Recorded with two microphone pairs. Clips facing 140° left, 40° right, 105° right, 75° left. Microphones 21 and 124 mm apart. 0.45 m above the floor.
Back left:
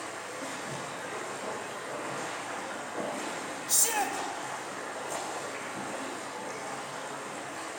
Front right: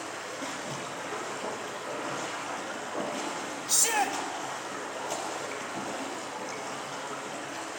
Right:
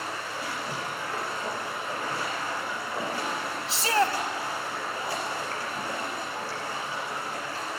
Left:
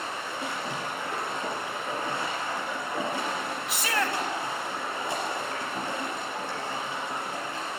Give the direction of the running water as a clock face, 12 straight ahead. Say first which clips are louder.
Front right 2 dB, left 1 dB; 12 o'clock.